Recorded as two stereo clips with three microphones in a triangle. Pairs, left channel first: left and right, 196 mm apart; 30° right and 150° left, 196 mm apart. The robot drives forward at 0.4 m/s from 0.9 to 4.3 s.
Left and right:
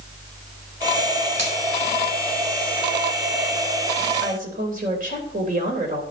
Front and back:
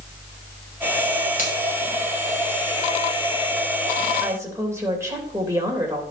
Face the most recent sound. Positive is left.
turn(degrees=-135)